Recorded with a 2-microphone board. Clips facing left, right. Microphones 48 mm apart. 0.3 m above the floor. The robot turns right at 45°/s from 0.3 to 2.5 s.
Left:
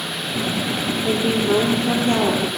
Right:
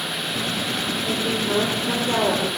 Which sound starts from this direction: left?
A woman speaking, at 1.0 s.